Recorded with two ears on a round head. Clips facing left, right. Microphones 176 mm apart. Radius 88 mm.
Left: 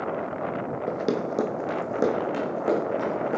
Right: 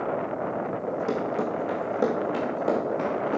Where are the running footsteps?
50° left (ahead or behind), 1.4 m; by 3.4 s 10° left (ahead or behind), 4 m.